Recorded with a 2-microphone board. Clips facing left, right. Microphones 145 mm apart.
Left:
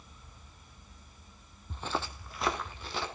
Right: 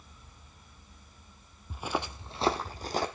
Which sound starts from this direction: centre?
Footsteps, at 1.7 s.